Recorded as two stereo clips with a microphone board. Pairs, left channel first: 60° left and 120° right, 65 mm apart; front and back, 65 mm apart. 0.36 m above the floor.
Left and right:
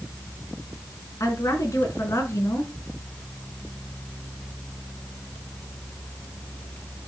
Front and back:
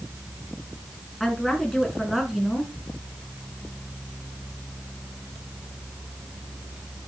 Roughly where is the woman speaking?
Left.